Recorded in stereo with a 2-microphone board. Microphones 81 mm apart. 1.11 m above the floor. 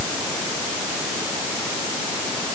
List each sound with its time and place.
Only background noise.